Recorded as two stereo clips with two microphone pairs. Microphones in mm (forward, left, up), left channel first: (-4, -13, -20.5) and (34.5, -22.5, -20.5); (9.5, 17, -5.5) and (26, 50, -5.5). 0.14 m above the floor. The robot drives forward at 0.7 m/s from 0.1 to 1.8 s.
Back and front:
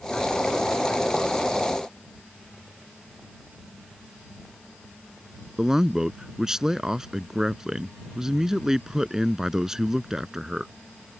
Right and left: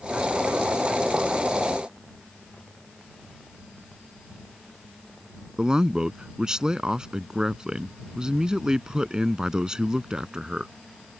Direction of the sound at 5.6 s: 40° left.